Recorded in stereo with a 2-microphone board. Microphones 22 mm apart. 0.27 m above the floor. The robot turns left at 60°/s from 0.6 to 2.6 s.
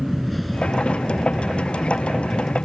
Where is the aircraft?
5° left (ahead or behind); by 2.6 s 55° left (ahead or behind).